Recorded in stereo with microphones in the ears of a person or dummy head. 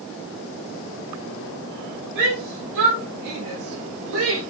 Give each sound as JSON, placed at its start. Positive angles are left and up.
{"t": 2.1, "sound": "a shout", "side_deg": -70, "distance_m": 8.5}